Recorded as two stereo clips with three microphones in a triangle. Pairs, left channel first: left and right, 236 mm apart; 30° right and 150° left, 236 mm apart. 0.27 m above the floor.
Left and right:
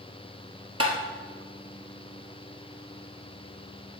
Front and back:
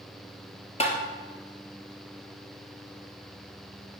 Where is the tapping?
95° right, 1.4 m.